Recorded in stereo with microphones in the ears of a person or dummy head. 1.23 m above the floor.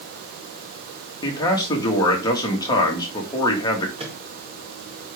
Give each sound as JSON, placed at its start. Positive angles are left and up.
{"t": 1.2, "sound": "a man speaking", "side_deg": 20, "distance_m": 1.9}
{"t": 4.0, "sound": "a microwave", "side_deg": -25, "distance_m": 1.6}